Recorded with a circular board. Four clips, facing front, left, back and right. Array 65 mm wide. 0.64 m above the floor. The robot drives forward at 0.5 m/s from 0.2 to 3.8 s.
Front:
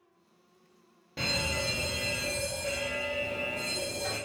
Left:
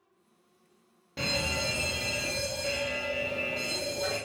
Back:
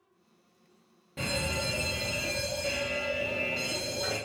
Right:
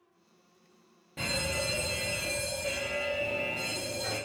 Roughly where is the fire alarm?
Ahead left.